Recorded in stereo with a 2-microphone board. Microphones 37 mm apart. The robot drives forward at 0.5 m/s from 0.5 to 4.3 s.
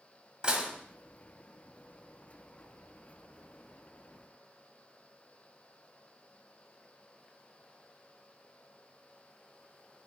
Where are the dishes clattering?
20° right (ahead or behind), 1.2 m.